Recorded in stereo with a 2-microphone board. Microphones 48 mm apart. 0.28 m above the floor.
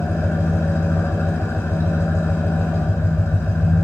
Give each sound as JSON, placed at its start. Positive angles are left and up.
{"t": 0.0, "sound": "an engine running", "side_deg": 65, "distance_m": 1.2}